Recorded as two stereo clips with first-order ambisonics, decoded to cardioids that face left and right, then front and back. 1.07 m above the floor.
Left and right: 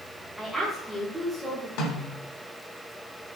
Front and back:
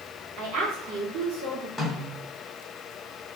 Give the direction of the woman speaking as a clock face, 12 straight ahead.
6 o'clock.